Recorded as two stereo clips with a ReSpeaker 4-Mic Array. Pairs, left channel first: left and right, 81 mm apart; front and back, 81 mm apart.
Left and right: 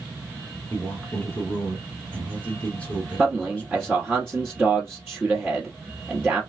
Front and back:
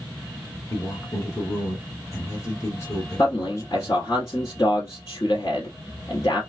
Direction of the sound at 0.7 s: 25° left.